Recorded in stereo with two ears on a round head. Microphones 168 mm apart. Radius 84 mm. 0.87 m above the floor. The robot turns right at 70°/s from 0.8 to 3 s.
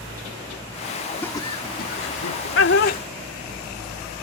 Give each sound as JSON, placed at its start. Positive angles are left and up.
{"t": 1.2, "sound": "laughter", "side_deg": 10}